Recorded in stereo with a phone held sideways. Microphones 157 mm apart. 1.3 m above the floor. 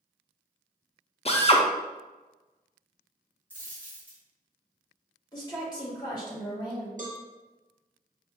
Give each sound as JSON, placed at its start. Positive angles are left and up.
{"t": 1.2, "sound": "a drill", "side_deg": 40, "distance_m": 0.5}
{"t": 3.5, "sound": "a dropped coin", "side_deg": 10, "distance_m": 1.7}
{"t": 5.3, "sound": "a woman speaking", "side_deg": 30, "distance_m": 1.6}
{"t": 7.0, "sound": "a cowbell", "side_deg": -55, "distance_m": 0.9}